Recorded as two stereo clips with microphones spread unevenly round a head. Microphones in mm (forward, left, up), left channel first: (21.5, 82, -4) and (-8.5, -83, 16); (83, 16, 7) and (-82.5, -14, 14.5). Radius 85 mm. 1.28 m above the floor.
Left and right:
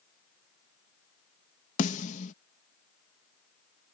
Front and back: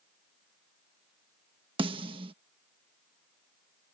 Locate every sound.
1.8 s a snare drum: 130° left